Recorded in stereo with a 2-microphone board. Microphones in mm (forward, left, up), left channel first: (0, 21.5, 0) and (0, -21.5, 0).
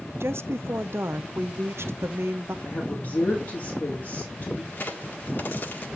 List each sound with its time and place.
0.2 s a woman speaking: 75° right (ahead or behind), 0.5 m
2.6 s a woman speaking: 40° left (ahead or behind), 2.5 m
4.7 s a crack: 55° left (ahead or behind), 1.5 m